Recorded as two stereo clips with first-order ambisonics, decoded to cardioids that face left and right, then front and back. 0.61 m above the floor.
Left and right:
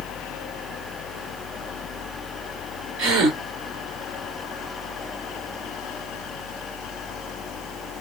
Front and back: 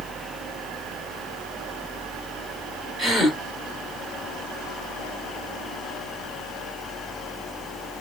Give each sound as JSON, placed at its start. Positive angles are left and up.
{"t": 3.0, "sound": "a gasp", "azimuth_deg": -85, "distance_m": 2.0}